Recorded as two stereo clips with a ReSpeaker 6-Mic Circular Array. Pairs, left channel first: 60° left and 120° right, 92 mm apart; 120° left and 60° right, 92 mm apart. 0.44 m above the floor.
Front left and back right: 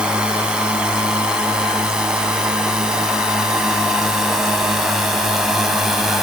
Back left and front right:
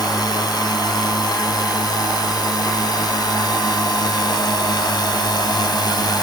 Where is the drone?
160° left; by 6.2 s 155° left.